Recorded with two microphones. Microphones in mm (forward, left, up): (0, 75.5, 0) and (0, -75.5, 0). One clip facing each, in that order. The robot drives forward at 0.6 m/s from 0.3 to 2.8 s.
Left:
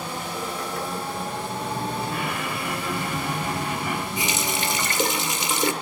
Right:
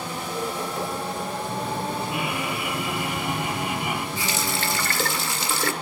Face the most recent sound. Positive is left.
turn(degrees=20)  # may be behind; listen again after turning